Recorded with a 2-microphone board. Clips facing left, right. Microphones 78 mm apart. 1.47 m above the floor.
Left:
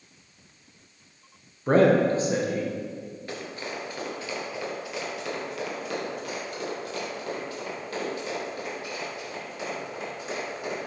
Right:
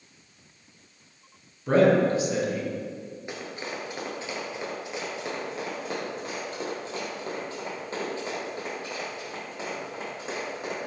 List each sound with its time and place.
1.7 s a man speaking: 40° left (ahead or behind), 0.9 m
3.3 s running footsteps: 20° right (ahead or behind), 1.5 m; by 10.8 s 35° right (ahead or behind), 4.5 m